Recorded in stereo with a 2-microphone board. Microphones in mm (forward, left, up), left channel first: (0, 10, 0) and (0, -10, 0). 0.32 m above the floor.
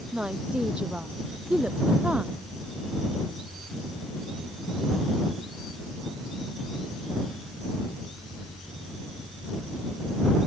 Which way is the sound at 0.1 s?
70° right (ahead or behind).